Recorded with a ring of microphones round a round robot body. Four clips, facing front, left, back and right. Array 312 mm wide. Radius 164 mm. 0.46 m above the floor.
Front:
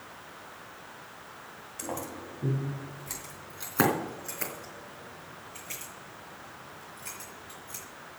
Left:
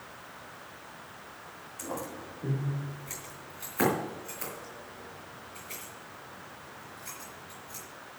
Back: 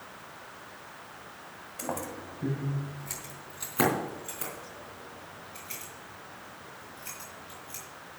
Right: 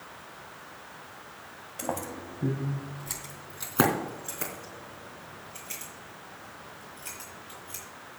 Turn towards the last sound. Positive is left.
turn(degrees=-70)